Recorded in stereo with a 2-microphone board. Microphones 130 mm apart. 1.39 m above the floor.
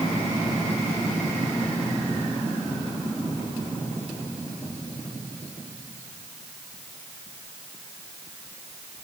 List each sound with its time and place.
Only background noise.